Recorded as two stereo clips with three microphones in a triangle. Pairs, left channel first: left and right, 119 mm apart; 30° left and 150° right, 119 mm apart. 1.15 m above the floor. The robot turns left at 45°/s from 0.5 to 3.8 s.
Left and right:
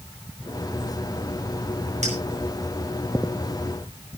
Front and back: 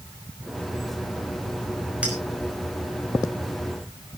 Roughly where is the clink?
Right.